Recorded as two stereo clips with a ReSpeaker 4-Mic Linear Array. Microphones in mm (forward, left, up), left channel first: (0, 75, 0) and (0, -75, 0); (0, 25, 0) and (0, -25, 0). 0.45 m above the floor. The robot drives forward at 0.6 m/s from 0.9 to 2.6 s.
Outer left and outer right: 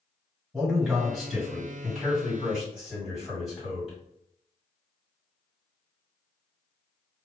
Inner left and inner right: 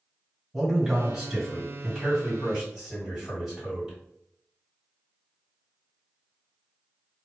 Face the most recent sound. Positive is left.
turn(degrees=-5)  # may be behind; listen again after turning